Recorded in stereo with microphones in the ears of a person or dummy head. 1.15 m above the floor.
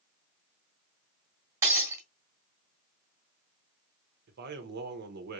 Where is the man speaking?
55° right (ahead or behind), 0.8 m.